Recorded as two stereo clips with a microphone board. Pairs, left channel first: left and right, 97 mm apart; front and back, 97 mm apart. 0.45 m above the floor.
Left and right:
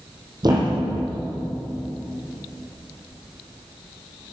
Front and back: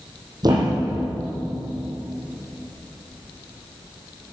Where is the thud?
135° right, 4 m.